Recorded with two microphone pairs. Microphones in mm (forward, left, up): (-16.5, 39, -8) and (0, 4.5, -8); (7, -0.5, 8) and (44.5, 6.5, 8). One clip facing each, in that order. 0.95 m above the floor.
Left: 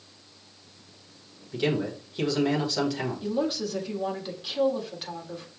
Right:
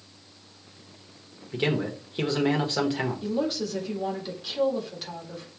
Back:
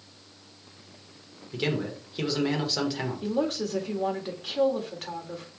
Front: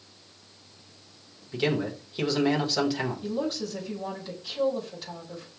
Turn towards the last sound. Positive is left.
turn(degrees=-165)